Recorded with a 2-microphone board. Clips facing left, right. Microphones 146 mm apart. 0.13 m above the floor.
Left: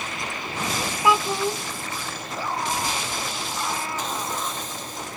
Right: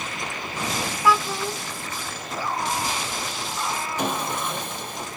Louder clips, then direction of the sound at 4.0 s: Right 3 dB; 65° right (ahead or behind).